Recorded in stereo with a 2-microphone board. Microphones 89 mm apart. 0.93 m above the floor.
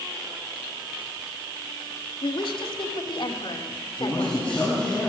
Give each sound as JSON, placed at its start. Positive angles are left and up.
{"t": 2.2, "sound": "a woman speaking", "side_deg": 70, "distance_m": 2.5}
{"t": 4.0, "sound": "a man speaking", "side_deg": 15, "distance_m": 6.5}